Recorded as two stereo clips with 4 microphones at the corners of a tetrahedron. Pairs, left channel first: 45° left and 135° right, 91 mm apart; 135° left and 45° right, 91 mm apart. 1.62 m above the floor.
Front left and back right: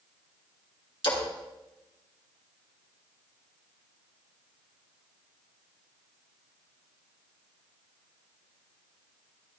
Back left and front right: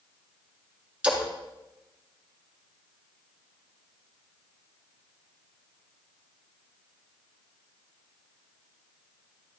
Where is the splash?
30° left, 2 m.